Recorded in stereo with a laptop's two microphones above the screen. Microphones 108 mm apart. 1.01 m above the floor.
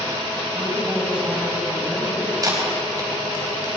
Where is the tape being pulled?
35° right (ahead or behind), 3.5 m.